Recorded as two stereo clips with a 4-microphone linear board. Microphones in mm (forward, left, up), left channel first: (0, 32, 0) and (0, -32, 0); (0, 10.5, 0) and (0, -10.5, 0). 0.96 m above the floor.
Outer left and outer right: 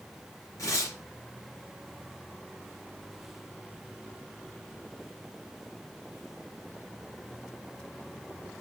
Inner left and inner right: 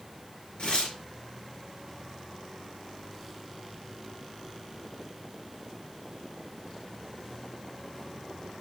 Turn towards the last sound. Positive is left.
turn(degrees=60)  # may be behind; listen again after turning